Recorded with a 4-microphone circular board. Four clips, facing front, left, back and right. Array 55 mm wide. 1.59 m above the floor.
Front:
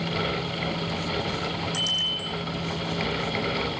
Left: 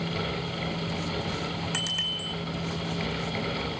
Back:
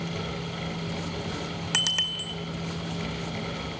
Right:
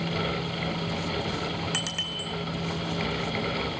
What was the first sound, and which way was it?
A bicycle bell, straight behind.